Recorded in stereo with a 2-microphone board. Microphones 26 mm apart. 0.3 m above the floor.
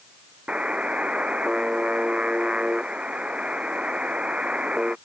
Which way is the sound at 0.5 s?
60° right (ahead or behind).